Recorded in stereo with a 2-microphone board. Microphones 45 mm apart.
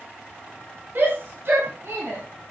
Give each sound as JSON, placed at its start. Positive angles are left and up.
{"t": 0.9, "sound": "a shout", "side_deg": -55, "distance_m": 3.0}